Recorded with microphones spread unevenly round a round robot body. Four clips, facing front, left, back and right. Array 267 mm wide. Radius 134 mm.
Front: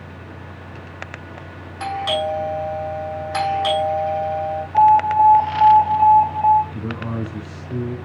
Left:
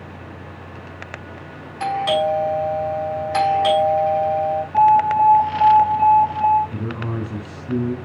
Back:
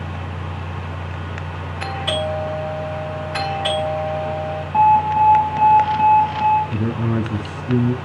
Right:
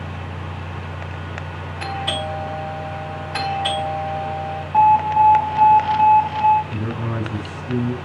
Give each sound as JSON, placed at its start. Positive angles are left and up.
{"t": 1.8, "sound": "a doorbell", "azimuth_deg": 100, "distance_m": 6.5}
{"t": 4.7, "sound": "an alarm", "azimuth_deg": 180, "distance_m": 4.5}
{"t": 6.7, "sound": "a man speaking", "azimuth_deg": 180, "distance_m": 3.5}